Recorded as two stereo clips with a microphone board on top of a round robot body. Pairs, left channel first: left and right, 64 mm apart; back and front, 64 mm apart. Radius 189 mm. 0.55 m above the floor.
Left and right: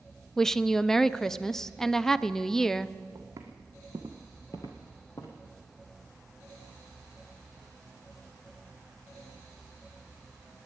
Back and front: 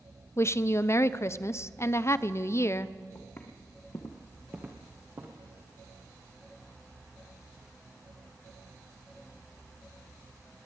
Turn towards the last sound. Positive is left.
turn(degrees=50)